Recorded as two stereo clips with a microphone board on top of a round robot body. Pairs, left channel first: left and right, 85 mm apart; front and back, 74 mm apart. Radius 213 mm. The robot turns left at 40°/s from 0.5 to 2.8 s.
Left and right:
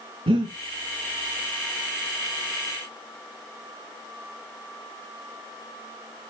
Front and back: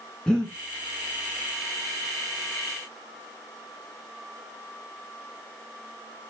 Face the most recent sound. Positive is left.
turn(degrees=-175)